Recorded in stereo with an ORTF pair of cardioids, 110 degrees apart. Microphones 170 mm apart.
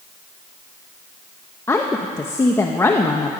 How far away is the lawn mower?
I don't hear a lawn mower.